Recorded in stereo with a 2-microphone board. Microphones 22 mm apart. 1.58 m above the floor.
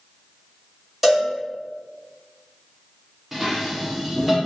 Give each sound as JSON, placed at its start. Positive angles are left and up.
{"t": 1.0, "sound": "a cowbell", "side_deg": -15, "distance_m": 1.4}
{"t": 3.3, "sound": "dishes clattering", "side_deg": -15, "distance_m": 0.5}